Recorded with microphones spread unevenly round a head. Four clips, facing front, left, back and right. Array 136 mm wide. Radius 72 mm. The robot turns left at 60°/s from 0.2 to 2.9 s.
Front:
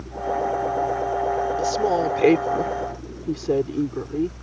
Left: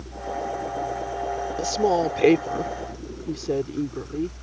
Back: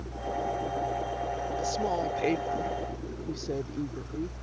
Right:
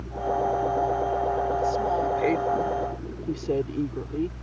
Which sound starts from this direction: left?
A woman speaking, at 1.6 s.